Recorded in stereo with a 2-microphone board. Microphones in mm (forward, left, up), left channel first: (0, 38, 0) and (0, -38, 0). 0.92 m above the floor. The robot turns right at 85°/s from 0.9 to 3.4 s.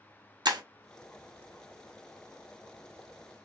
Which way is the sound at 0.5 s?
80° right.